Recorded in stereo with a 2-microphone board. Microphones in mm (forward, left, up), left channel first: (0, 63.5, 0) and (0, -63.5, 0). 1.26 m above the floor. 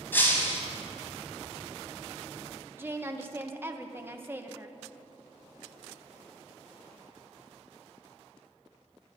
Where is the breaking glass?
15° left (ahead or behind), 3 m.